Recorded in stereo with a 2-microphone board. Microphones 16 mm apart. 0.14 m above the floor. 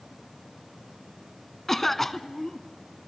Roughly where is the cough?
Left.